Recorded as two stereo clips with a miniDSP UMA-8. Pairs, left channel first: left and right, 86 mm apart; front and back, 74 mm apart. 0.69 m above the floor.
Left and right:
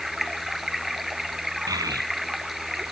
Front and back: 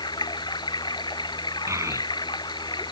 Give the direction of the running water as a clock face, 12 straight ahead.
12 o'clock.